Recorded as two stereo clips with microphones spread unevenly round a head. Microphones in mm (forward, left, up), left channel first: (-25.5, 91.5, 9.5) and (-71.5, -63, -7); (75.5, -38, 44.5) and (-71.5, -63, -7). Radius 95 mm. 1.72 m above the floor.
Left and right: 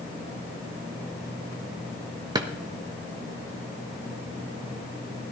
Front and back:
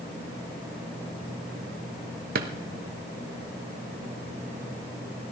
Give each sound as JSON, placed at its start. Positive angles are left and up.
{"t": 2.4, "sound": "a drawer", "azimuth_deg": -165, "distance_m": 1.1}